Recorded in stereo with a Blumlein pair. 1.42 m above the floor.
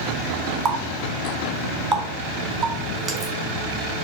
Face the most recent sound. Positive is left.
turn(degrees=-15)